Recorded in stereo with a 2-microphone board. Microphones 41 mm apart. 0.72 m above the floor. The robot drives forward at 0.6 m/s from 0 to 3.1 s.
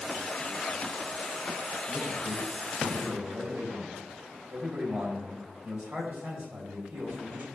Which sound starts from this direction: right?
A man speaking, at 1.9 s.